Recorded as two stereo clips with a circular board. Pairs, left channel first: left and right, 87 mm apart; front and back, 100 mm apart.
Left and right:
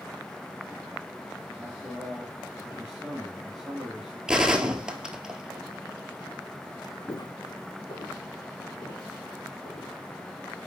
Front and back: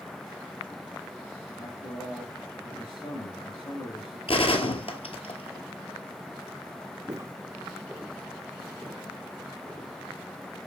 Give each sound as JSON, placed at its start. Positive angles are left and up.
{"t": 1.6, "sound": "a man speaking", "azimuth_deg": -10, "distance_m": 3.0}
{"t": 4.3, "sound": "a gunshot", "azimuth_deg": -10, "distance_m": 1.0}
{"t": 7.1, "sound": "footsteps", "azimuth_deg": 135, "distance_m": 0.6}